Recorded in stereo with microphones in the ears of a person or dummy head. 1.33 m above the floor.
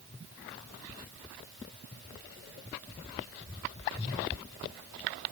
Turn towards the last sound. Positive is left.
No sound to turn to.